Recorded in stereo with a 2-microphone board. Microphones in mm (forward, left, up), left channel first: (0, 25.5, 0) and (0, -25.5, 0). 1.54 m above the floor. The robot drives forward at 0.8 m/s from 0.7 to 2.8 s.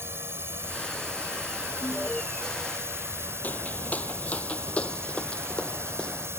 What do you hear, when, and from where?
0.0 s a drone: 50° right (ahead or behind); by 6.4 s 55° right (ahead or behind)
1.8 s an alarm: centre (ahead or behind)
3.4 s footsteps: 35° left (ahead or behind); by 6.3 s 20° left (ahead or behind)